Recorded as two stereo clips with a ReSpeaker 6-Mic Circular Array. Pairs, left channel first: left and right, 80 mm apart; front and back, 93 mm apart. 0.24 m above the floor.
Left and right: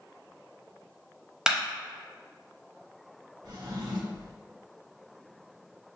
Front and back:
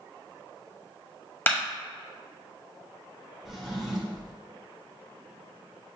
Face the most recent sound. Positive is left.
turn(degrees=-95)